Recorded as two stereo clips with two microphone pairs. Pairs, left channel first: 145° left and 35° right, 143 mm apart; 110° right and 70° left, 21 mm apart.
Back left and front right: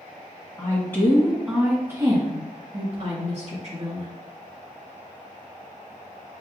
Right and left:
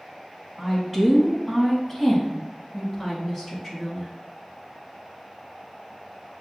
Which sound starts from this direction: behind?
A woman speaking, at 0.6 s.